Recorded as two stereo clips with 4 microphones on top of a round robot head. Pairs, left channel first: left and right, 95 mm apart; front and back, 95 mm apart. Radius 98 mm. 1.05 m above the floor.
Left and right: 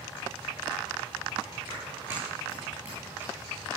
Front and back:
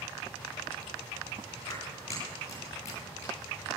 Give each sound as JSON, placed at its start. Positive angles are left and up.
{"t": 1.7, "sound": "a clap", "azimuth_deg": -15, "distance_m": 10.0}